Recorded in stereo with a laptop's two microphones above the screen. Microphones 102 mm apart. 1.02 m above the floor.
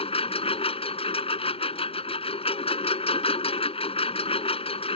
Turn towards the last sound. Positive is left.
turn(degrees=70)  # may be behind; listen again after turning